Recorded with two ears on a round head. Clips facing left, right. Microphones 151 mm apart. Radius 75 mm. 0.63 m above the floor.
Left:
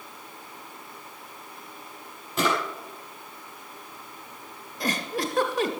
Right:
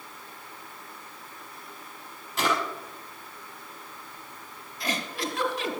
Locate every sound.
2.4 s a drawer: 85° left, 5 m
4.8 s a giggle: 45° left (ahead or behind), 1.5 m